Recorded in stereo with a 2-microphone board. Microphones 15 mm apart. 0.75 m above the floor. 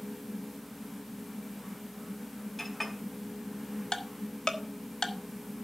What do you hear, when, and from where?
2.6 s a clink: 5° left (ahead or behind), 3 m
3.9 s ticking: 60° left (ahead or behind), 1.4 m